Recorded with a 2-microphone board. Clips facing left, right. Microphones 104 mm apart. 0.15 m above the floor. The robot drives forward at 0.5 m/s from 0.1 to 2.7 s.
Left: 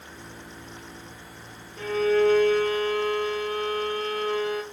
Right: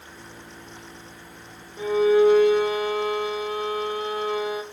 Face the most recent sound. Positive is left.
turn(degrees=-10)  # may be behind; listen again after turning